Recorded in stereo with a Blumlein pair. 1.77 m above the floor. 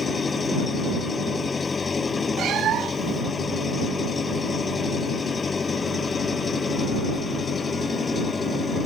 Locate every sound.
0.0 s an engine running: 15° left
2.4 s a cat meowing: 30° right